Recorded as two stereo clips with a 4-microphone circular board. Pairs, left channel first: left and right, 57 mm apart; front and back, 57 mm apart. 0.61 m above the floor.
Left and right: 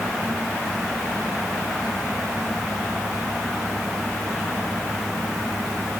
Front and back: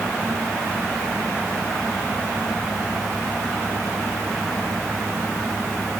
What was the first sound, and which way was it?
Only background noise.